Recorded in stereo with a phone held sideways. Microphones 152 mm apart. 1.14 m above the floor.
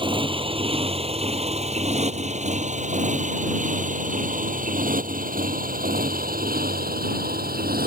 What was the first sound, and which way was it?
A motorcycle, 35° right (ahead or behind).